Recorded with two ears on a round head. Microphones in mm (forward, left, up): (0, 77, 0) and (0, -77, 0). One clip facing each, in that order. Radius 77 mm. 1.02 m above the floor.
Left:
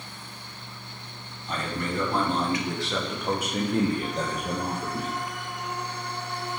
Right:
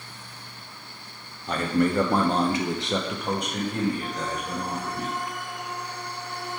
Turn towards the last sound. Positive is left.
turn(degrees=45)  # may be behind; listen again after turning